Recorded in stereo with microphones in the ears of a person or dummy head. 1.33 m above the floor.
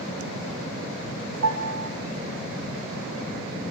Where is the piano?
70° right (ahead or behind), 1.0 m.